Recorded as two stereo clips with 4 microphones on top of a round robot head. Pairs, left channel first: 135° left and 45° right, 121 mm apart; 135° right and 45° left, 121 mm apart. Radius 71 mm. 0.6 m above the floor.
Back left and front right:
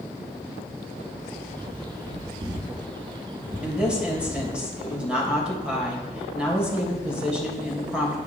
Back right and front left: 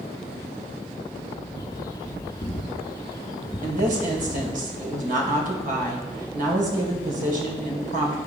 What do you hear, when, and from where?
1.6 s a bird: 85° right, 1.0 m
3.6 s a woman speaking: 40° left, 3 m